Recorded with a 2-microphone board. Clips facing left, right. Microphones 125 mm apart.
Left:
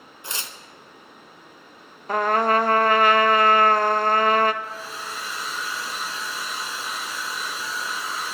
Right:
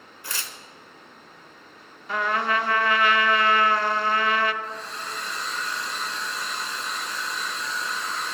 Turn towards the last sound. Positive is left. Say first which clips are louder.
# even
turn(degrees=5)  # may be behind; listen again after turning